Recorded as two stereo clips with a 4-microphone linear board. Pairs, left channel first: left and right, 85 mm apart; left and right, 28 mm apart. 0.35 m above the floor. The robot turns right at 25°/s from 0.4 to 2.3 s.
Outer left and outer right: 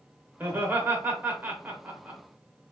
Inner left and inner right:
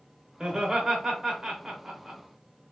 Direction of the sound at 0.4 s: 25° right (ahead or behind).